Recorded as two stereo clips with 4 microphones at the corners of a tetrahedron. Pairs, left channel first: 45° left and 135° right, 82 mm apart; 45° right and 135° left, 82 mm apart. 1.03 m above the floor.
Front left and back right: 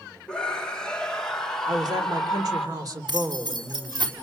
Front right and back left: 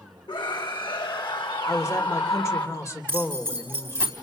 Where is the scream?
35° right, 2.5 m; by 2.7 s 40° right, 4 m.